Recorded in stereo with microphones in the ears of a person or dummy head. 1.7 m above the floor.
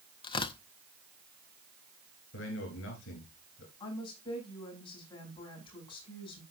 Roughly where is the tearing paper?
Left.